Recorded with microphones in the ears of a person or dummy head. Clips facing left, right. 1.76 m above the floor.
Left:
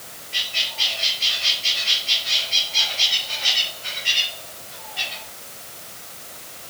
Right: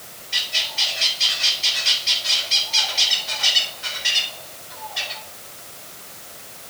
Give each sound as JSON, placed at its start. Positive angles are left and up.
{"t": 0.3, "sound": "a bird", "side_deg": -75, "distance_m": 4.5}